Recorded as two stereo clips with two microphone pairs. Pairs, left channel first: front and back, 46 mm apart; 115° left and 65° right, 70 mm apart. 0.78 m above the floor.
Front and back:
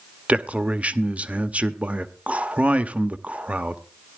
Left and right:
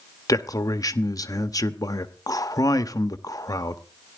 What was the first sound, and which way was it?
A man speaking, 125° left.